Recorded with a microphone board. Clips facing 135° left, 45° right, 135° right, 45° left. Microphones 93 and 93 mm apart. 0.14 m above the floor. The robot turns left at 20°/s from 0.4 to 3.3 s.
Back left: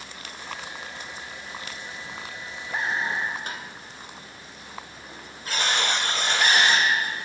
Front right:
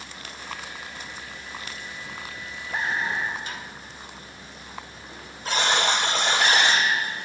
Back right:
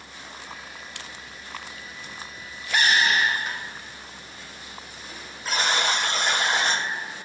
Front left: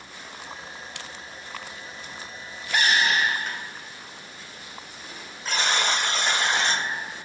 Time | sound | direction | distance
3.5 | tapping | 140° left | 1.7 m
5.5 | a buzzer | 50° right | 2.5 m